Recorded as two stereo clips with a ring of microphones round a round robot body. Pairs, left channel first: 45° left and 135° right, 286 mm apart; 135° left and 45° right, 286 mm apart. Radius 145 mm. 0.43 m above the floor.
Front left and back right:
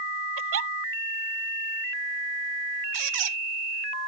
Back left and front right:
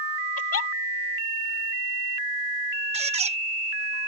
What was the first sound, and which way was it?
A giggle, straight behind.